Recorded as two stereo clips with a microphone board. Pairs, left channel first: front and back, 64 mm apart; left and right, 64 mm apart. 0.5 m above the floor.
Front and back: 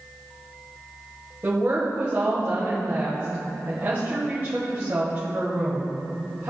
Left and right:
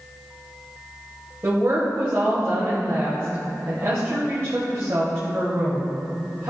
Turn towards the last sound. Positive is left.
turn(degrees=-130)